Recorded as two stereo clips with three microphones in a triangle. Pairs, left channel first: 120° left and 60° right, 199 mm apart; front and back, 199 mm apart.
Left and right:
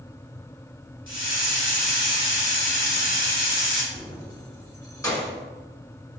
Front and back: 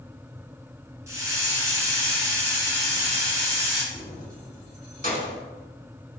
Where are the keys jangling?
45° left, 1.3 m.